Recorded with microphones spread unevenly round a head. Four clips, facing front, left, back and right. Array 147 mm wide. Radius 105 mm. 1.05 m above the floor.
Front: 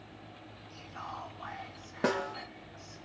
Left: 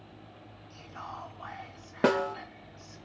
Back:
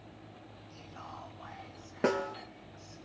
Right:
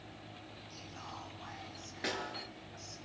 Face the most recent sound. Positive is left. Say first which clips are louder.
# left 14 dB, back 1 dB
turn(degrees=75)